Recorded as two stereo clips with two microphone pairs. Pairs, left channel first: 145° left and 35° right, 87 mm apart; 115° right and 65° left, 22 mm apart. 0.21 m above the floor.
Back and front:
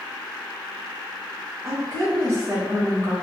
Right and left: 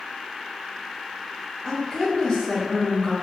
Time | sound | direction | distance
1.6 | a woman speaking | 70° right | 1.6 m